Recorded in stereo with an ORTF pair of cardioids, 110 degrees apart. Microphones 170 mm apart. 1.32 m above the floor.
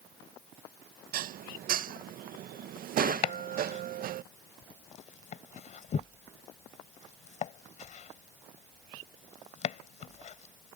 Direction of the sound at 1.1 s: 65° right.